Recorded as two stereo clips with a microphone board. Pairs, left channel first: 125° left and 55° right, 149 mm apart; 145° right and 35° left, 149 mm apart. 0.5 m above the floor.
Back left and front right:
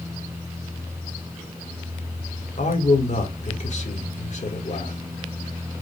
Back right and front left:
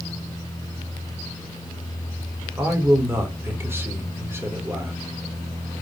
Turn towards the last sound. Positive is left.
turn(degrees=105)